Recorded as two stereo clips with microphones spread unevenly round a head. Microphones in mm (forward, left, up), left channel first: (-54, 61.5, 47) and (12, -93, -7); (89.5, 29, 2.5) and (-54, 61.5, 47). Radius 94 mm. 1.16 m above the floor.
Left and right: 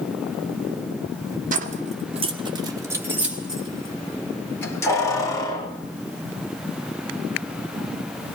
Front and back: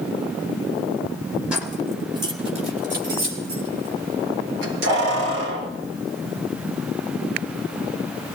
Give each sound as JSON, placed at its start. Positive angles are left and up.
{"t": 1.5, "sound": "keys jangling", "azimuth_deg": -105, "distance_m": 2.5}